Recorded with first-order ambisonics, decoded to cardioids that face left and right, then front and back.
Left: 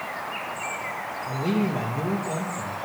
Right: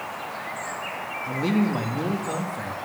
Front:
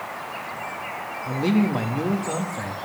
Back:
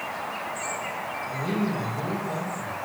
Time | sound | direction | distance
1.2 | a man speaking | 30° right | 2 m